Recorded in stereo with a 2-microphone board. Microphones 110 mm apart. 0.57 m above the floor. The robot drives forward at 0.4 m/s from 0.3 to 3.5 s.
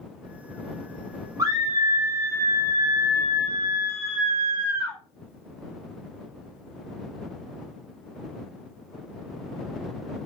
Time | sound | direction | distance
1.4 | a scream | 35° right (ahead or behind) | 0.8 m